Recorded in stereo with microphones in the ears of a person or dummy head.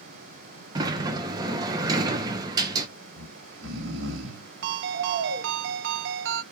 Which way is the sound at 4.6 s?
65° right (ahead or behind).